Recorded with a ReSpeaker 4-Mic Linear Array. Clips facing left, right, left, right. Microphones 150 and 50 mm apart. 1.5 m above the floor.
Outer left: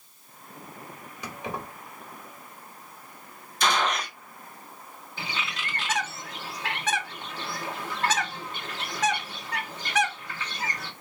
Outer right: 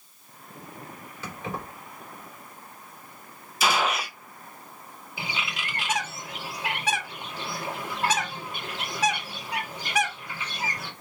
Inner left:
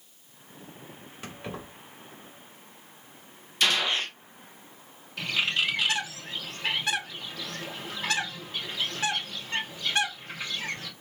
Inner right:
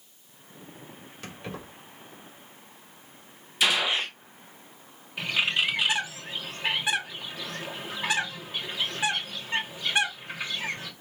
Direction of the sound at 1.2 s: 15° left (ahead or behind).